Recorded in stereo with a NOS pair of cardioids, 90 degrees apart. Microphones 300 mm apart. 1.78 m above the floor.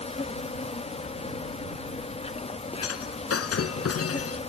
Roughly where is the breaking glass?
Ahead left.